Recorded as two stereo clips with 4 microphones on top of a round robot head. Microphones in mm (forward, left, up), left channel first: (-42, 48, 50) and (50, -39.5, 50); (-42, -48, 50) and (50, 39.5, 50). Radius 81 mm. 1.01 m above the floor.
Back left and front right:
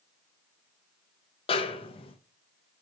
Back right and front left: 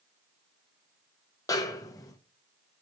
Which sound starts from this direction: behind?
A snare drum, at 1.5 s.